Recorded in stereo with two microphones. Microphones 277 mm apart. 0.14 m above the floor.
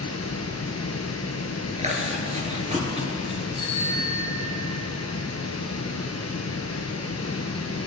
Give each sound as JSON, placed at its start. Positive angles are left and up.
{"t": 0.0, "sound": "running water", "side_deg": 60, "distance_m": 1.5}
{"t": 1.8, "sound": "chewing", "side_deg": -25, "distance_m": 2.5}
{"t": 3.5, "sound": "a bicycle bell", "side_deg": -20, "distance_m": 5.0}